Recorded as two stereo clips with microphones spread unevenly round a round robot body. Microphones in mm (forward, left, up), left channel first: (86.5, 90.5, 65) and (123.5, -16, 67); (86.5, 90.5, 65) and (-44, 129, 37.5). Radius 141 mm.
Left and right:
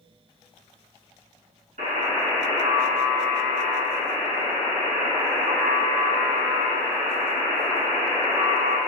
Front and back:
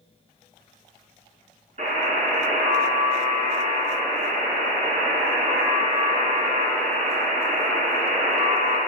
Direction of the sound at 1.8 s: 125° right.